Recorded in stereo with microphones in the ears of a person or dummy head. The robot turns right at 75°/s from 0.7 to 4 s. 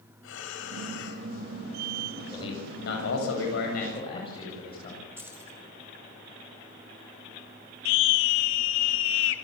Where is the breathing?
80° left, 5 m; by 1.3 s 125° left, 5 m.